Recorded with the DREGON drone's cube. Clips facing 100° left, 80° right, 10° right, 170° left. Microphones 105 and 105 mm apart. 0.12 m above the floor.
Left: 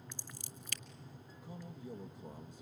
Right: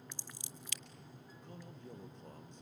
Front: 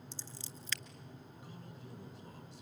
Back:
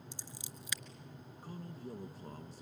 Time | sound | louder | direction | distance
0.1 | scissors | left 1 dB, even | 100° left | 0.5 m
1.4 | a man speaking | left 5 dB, back 8 dB | straight behind | 1.7 m